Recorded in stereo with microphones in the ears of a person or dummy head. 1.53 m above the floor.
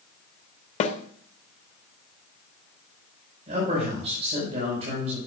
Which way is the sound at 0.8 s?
40° left (ahead or behind).